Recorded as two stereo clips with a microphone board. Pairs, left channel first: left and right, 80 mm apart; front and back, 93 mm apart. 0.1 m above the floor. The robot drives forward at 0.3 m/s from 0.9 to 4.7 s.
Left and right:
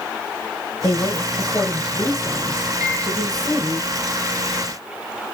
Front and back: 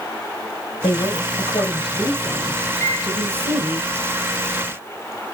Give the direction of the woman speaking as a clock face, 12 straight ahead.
12 o'clock.